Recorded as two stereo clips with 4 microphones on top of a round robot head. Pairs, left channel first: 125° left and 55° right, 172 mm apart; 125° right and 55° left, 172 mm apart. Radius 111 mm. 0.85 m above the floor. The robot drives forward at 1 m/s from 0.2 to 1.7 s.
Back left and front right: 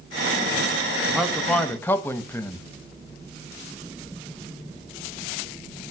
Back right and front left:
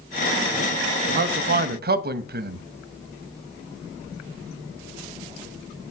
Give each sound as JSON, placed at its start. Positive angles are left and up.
{"t": 1.1, "sound": "a man speaking", "azimuth_deg": 30, "distance_m": 1.5}